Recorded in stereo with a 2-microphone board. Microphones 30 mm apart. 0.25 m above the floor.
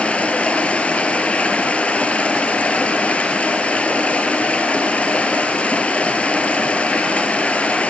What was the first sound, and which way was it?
Running water, 50° left (ahead or behind).